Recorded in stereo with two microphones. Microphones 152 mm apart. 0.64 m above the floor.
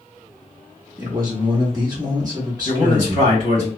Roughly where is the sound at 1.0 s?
Right.